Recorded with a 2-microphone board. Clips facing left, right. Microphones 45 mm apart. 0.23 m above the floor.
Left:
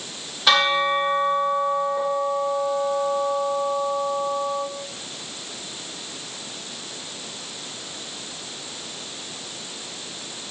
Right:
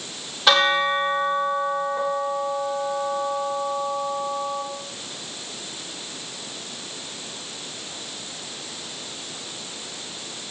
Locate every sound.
0.5 s a bell: centre (ahead or behind), 4 m